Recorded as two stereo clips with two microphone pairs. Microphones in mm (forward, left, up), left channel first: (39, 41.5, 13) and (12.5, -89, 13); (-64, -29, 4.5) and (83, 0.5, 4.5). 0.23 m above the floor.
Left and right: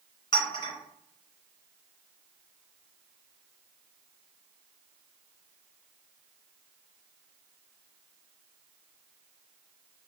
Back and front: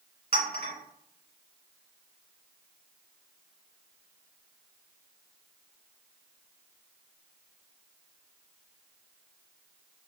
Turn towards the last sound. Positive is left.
turn(degrees=30)